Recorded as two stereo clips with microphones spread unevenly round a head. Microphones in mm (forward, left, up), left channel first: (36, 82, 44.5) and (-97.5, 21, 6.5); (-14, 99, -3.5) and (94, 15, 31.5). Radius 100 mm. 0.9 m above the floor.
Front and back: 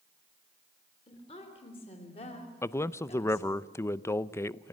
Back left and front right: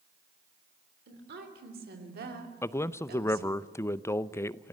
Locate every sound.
1.1 s a woman speaking: 40° right, 3.5 m; by 3.6 s 35° right, 2 m
2.6 s a man speaking: 110° left, 0.6 m